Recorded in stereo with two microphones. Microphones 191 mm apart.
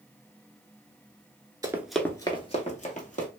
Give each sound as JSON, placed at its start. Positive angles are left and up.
{"t": 1.6, "sound": "running footsteps", "side_deg": -20, "distance_m": 0.5}